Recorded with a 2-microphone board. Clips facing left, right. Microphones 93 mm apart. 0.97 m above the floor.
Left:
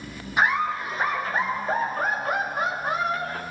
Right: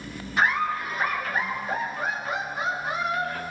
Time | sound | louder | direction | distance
0.4 | laughter | left 1 dB | 15° left (ahead or behind) | 1.2 m